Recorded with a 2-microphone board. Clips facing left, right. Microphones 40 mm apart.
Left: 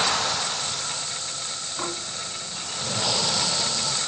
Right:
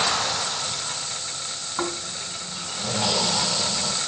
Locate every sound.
1.8 s snoring: 65° right (ahead or behind), 5 m